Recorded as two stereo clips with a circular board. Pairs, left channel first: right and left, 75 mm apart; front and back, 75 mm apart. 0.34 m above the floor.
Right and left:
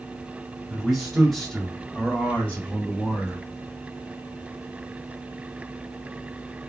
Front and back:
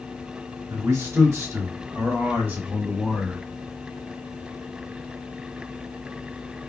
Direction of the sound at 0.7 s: Straight behind.